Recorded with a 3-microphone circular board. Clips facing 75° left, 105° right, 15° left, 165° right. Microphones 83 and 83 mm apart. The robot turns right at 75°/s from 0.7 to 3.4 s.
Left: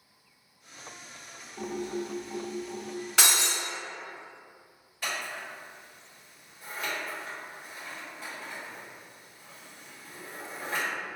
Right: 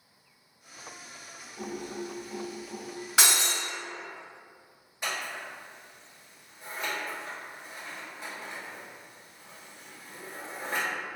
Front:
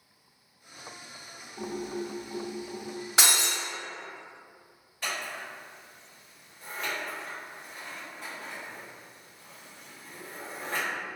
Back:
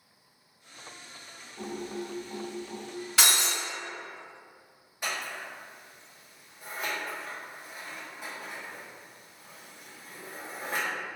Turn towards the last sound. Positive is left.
turn(degrees=-135)